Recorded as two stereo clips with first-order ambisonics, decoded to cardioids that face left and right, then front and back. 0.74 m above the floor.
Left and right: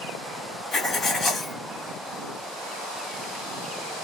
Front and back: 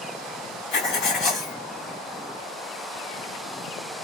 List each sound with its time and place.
0.7 s writing: 20° left, 1.5 m